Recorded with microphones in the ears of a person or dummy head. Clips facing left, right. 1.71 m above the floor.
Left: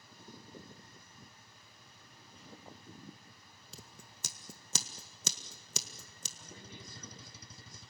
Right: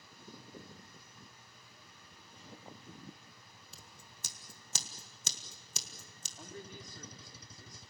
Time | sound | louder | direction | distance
3.7 | scissors | left 6 dB | 80° left | 1.7 m
6.4 | a man speaking | right 6 dB | 45° right (ahead or behind) | 3.5 m